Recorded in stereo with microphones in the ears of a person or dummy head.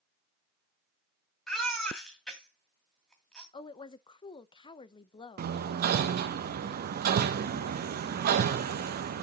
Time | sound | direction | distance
1.5 | a baby crying | centre (ahead or behind) | 2.5 m
3.5 | a woman speaking | 25° left (ahead or behind) | 0.6 m
5.4 | hammering | 55° right (ahead or behind) | 0.8 m